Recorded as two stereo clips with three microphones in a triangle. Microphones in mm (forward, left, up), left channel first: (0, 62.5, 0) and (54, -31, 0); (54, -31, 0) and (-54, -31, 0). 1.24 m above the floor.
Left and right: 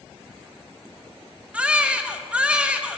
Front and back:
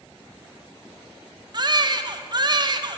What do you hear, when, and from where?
1.5 s a baby crying: 135° right, 0.5 m